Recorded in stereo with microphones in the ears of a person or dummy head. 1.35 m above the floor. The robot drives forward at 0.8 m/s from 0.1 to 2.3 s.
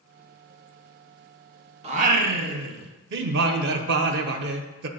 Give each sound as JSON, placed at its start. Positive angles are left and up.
{"t": 1.8, "sound": "singing", "side_deg": -40, "distance_m": 0.7}